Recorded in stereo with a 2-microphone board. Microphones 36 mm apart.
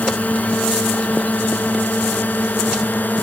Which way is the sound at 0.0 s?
55° left (ahead or behind).